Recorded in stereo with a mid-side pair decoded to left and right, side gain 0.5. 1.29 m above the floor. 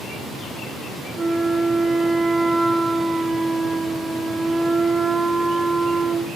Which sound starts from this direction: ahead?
A flute, at 1.2 s.